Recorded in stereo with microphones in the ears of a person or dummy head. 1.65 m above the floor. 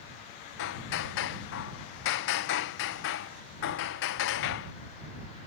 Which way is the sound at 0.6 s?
60° left (ahead or behind).